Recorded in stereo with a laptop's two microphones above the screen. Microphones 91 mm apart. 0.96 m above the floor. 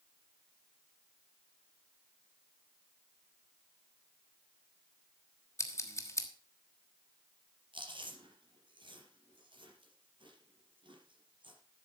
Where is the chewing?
65° right (ahead or behind), 4.5 m.